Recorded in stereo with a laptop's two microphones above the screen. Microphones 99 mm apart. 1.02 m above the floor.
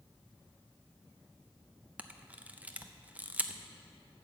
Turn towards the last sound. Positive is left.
turn(degrees=-15)  # may be behind; listen again after turning